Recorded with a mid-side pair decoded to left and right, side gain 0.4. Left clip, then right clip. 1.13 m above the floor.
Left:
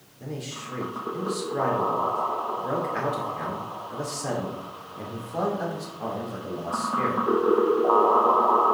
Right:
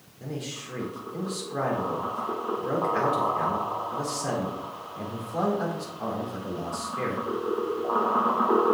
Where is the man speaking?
Straight ahead, 4 m.